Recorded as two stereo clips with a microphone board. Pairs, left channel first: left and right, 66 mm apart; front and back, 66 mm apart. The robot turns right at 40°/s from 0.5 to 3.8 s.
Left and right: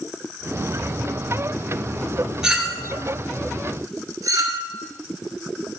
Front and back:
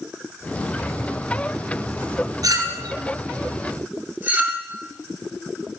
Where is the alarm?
No alarm in this recording.